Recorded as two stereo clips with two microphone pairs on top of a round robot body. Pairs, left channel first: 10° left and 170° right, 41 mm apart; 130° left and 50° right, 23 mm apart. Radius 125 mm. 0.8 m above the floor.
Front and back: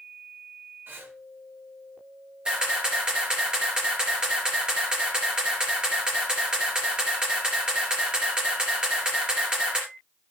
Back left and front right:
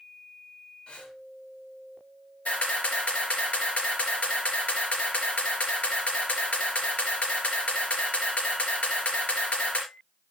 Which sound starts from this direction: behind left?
A camera shutter, at 2.5 s.